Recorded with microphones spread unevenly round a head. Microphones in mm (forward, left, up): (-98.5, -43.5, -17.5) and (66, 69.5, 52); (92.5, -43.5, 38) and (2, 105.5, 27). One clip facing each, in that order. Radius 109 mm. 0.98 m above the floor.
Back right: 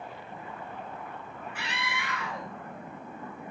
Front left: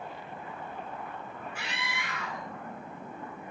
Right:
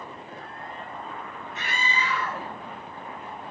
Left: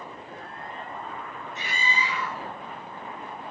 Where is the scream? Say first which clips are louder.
Back right 2 dB, right 1 dB; 110° right, 6 m.